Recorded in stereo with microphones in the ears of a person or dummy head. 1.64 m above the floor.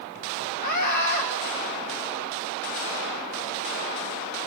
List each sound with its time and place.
0.6 s a scream: 50° left (ahead or behind), 1.6 m